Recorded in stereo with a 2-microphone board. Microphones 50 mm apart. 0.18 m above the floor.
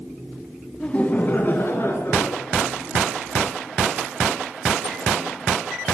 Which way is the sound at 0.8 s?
20° left (ahead or behind).